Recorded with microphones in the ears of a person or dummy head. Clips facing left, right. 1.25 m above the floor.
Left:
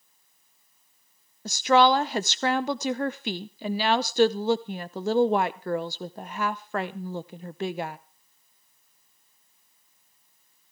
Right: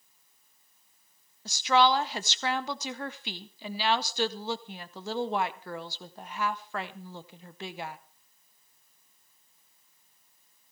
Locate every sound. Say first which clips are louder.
1.4 s a woman speaking: left 4 dB; 45° left (ahead or behind), 0.6 m